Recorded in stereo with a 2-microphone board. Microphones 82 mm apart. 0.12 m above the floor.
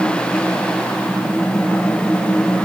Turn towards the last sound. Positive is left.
No sound to turn to.